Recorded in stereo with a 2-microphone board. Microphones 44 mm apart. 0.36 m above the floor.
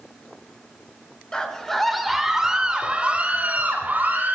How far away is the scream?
About 1.3 m.